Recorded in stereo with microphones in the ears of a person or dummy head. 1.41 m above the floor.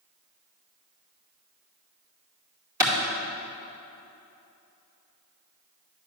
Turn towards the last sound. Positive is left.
turn(degrees=-15)  # may be behind; listen again after turning